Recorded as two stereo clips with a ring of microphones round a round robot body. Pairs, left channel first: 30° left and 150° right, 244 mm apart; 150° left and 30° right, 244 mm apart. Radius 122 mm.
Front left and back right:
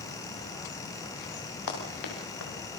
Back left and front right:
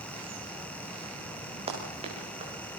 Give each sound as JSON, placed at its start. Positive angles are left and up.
{"t": 1.7, "sound": "running footsteps", "azimuth_deg": 40, "distance_m": 7.5}